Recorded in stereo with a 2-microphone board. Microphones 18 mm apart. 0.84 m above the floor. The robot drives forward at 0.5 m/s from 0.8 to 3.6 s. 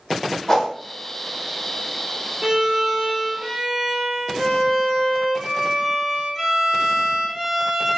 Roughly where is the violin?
Right.